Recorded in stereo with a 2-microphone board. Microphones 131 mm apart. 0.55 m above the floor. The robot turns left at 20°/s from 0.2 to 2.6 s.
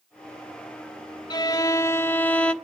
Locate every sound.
1.3 s a violin: 30° left (ahead or behind), 0.7 m; by 2.5 s 10° left (ahead or behind), 0.7 m